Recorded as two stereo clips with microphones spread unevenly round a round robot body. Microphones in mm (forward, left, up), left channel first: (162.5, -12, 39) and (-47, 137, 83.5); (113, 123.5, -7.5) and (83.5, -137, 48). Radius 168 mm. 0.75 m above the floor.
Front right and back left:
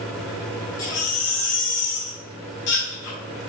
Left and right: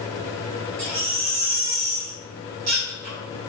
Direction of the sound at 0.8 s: 85° right.